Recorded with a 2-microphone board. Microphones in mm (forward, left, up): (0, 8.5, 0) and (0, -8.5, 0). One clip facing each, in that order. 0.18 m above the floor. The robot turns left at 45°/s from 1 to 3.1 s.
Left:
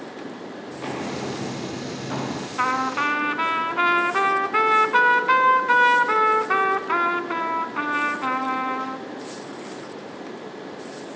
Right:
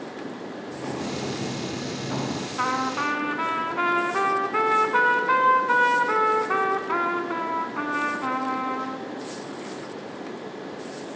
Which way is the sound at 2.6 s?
40° left (ahead or behind).